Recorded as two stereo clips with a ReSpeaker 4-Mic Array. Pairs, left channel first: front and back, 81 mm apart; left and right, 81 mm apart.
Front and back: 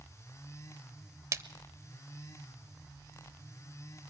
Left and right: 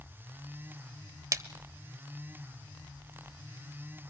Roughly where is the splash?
Behind right.